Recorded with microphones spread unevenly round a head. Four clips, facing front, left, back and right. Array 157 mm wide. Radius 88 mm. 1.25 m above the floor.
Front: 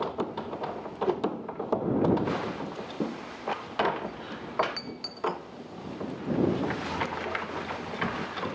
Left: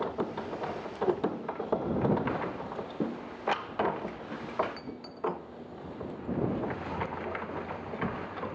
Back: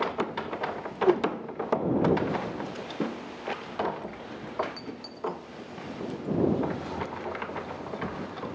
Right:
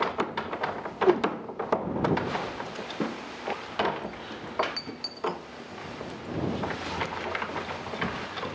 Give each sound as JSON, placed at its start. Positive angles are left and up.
{"t": 1.0, "sound": "a whoosh", "azimuth_deg": -110}